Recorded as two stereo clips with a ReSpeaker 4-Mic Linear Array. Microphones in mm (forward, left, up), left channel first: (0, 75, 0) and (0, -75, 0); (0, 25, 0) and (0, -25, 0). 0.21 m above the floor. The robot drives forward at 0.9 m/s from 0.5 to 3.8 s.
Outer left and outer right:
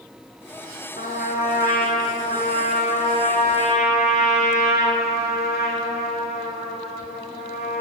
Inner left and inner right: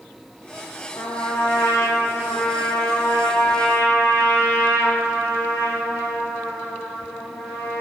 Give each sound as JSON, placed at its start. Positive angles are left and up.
{"t": 1.0, "sound": "a trumpet", "side_deg": 85, "distance_m": 2.5}